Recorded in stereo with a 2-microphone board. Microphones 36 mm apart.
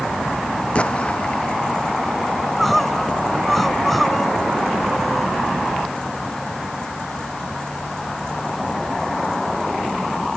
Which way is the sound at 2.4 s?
5° left (ahead or behind).